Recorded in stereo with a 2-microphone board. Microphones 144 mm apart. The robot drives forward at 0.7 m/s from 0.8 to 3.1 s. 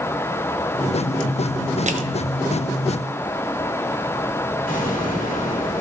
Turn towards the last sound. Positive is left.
turn(degrees=75)  # may be behind; listen again after turning